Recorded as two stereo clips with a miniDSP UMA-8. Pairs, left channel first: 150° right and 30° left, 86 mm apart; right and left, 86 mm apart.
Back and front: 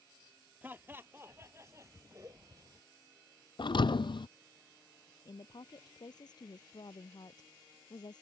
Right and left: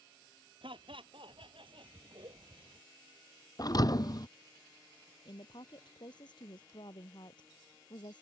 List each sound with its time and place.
0.6 s laughter: 95° left; by 2.8 s 70° left
3.6 s a thud: 130° right
5.2 s a woman speaking: 120° right